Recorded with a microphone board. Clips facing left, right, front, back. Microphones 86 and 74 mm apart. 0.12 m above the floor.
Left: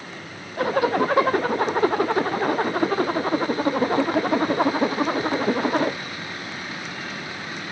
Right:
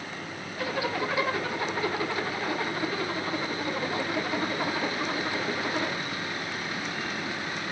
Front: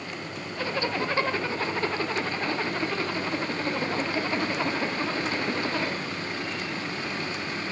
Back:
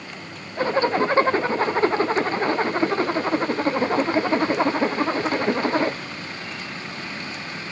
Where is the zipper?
125° left, 1.2 m.